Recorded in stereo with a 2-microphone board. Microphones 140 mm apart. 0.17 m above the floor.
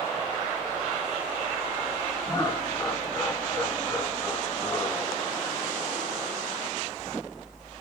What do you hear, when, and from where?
2.3 s laughter: 30° left (ahead or behind), 2 m